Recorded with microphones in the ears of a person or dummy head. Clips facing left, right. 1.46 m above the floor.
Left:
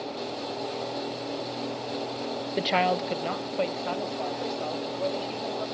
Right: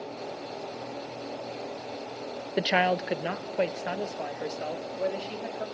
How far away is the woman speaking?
About 0.5 m.